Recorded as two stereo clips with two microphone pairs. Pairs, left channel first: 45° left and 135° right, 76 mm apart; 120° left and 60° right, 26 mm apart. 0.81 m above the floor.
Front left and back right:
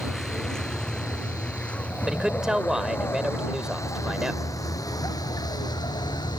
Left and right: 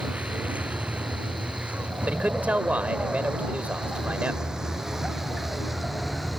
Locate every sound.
0.0 s a vehicle: 40° right; by 6.4 s 30° left
2.1 s a man speaking: 55° right